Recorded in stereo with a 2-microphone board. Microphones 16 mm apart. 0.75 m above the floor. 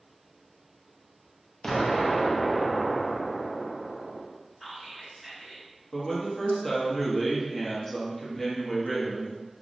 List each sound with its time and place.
1.6 s an explosion: 35° left (ahead or behind), 0.5 m
4.6 s whispering: centre (ahead or behind), 1.7 m
5.9 s a man speaking: 25° left (ahead or behind), 0.7 m